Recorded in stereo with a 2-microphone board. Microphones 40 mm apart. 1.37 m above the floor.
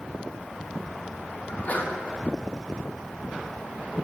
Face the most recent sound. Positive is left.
turn(degrees=45)  # may be behind; listen again after turning